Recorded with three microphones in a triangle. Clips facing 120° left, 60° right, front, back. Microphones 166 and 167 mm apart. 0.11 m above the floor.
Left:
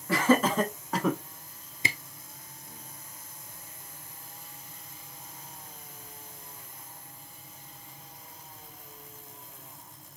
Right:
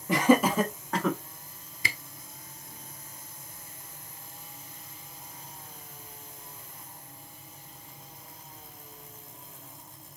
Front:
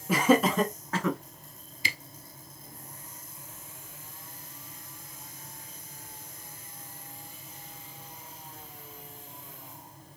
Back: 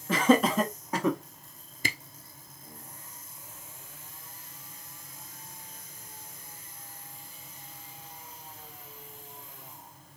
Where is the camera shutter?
Straight behind, 0.9 m.